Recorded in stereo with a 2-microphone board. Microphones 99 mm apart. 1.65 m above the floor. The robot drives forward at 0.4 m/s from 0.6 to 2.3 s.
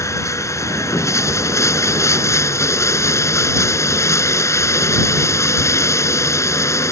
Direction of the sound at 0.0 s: 30° left (ahead or behind).